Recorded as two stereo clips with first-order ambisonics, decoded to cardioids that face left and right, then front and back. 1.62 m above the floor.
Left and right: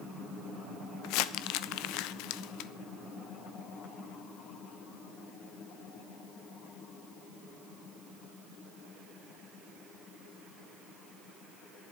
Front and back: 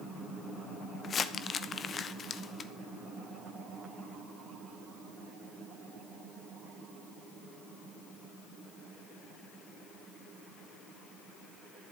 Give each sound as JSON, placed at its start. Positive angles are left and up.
{"t": 1.0, "sound": "crumpling", "azimuth_deg": 65, "distance_m": 0.6}